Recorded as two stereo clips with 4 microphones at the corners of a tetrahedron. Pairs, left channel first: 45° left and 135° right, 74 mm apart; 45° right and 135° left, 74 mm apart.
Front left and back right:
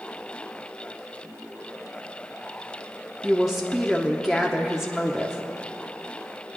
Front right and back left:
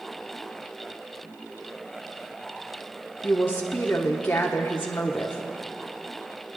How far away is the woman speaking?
About 1.0 m.